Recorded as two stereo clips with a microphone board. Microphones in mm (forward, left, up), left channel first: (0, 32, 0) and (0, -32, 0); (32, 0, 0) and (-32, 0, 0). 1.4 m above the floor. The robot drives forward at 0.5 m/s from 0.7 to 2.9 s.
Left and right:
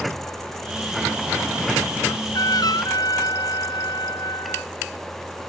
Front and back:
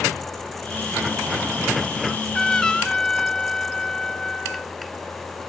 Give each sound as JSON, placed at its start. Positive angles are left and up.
{"t": 2.0, "sound": "a trumpet", "azimuth_deg": 75}